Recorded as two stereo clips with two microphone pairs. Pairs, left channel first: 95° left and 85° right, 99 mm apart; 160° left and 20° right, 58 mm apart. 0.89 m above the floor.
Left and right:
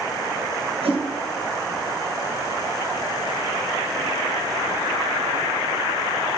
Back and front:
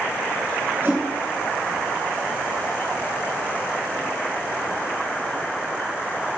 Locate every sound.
0.8 s a whoosh: 75° right, 3 m